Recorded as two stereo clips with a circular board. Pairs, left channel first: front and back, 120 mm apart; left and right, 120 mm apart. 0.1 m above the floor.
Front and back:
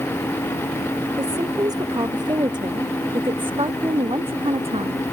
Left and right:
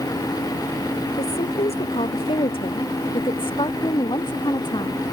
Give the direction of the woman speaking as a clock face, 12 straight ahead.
8 o'clock.